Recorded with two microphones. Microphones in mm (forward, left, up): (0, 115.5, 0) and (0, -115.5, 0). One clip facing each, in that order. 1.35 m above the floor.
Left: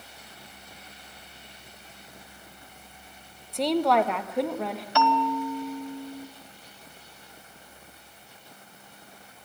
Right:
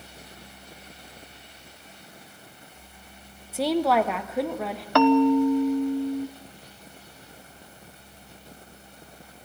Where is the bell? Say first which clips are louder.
Right 10 dB; 60° right (ahead or behind), 1.0 m.